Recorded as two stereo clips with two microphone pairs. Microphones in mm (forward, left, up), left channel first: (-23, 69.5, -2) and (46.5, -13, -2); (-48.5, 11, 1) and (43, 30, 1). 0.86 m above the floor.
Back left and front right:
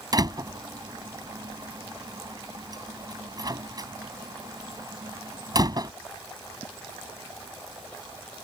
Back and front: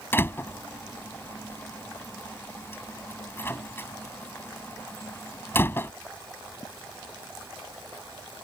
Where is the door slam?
100° right.